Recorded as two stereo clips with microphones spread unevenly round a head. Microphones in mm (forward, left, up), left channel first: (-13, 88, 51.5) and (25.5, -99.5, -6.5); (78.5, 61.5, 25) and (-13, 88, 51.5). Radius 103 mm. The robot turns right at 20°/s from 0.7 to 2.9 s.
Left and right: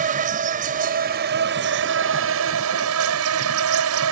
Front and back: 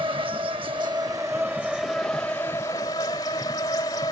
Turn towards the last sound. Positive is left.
turn(degrees=-90)